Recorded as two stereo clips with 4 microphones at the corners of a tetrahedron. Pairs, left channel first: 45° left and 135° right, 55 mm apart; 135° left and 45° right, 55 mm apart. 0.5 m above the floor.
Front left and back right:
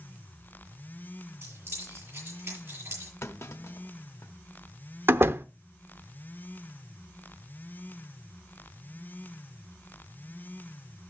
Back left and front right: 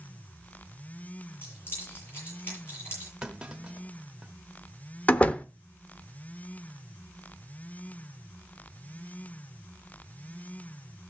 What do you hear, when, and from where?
1.4 s keys jangling: straight behind, 7.5 m
3.2 s a clunk: 25° left, 0.9 m
5.1 s a door slam: 165° right, 0.6 m